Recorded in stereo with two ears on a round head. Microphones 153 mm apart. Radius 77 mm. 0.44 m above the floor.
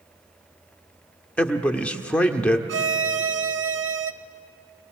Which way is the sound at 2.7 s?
75° right (ahead or behind).